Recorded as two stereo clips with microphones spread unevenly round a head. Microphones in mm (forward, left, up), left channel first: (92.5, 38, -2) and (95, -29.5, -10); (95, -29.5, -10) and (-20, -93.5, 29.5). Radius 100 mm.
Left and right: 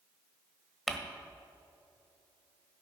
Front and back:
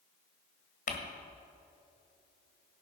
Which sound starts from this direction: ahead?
Crumpling, at 0.9 s.